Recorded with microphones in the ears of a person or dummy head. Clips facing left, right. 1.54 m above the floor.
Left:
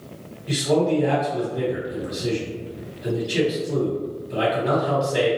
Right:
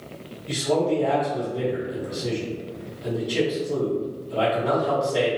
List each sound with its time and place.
0.5 s a man speaking: 10° left (ahead or behind), 1.6 m